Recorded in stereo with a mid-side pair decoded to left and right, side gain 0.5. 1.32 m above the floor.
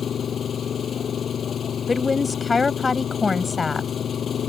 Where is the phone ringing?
No phone ringing in this recording.